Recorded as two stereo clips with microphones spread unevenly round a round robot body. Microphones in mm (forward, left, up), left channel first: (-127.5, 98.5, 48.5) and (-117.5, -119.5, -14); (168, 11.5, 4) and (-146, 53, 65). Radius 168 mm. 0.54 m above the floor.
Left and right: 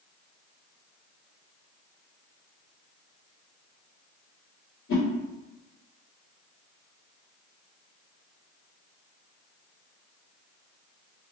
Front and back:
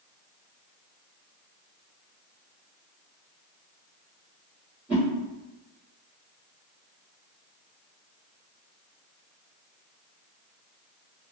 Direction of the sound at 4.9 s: 75° left.